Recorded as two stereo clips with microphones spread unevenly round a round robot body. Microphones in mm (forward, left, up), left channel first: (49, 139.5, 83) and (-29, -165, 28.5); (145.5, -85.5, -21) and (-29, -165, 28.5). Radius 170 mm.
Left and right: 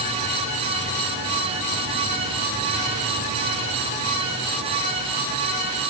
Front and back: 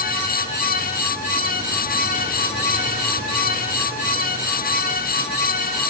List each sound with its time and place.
Only background noise.